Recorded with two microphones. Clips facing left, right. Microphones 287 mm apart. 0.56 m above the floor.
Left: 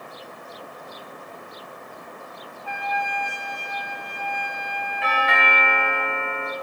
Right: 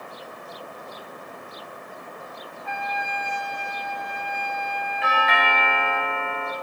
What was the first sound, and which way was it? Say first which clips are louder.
A trumpet: left 2 dB; 20° right (ahead or behind).